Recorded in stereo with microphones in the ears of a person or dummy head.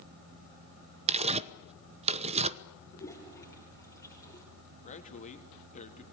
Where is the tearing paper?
35° right (ahead or behind), 0.8 m.